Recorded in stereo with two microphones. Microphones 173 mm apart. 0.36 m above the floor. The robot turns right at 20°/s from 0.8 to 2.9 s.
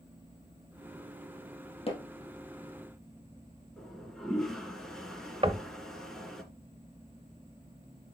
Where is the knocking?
35° right (ahead or behind), 0.9 m.